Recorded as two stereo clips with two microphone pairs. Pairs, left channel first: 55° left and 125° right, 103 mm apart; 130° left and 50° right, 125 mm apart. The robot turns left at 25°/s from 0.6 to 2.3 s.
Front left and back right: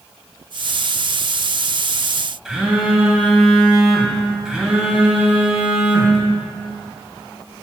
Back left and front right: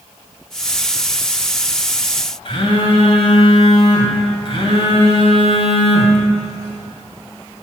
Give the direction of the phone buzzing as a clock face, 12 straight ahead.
7 o'clock.